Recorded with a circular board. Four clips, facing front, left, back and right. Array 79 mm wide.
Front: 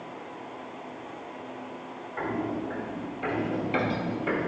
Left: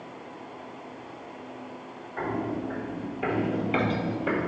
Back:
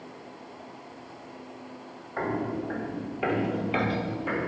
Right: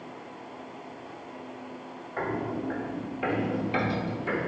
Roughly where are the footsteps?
Behind right.